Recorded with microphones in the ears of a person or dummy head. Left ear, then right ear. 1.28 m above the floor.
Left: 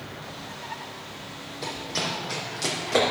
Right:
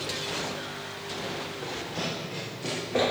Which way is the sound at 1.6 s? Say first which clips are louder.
Left 7 dB; 60° left (ahead or behind).